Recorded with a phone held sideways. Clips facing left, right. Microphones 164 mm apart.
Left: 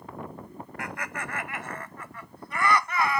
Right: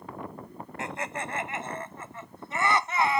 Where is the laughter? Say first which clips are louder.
Right 3 dB; 25° right (ahead or behind); by 3.2 s 20° right (ahead or behind).